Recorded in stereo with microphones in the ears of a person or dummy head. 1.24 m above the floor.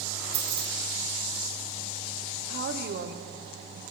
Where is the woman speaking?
55° right (ahead or behind), 0.6 m.